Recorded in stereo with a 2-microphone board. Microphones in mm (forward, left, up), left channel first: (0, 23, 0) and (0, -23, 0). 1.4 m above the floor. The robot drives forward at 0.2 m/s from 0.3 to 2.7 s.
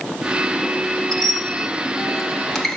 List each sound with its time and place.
1.1 s a squeak: 10° left (ahead or behind), 0.9 m